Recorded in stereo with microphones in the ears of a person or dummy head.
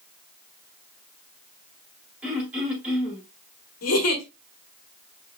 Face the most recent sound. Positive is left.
turn(degrees=80)